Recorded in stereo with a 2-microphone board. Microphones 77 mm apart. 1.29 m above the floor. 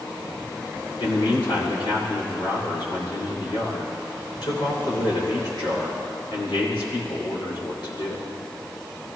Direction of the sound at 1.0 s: 80° left.